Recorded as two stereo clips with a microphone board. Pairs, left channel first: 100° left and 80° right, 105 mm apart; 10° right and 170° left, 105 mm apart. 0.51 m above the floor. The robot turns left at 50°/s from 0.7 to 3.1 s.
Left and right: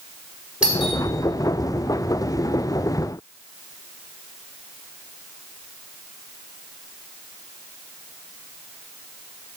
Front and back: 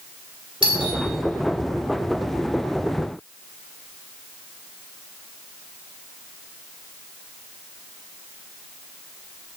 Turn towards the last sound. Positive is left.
turn(degrees=80)